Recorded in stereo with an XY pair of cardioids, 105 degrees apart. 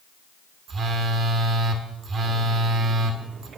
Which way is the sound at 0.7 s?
50° right.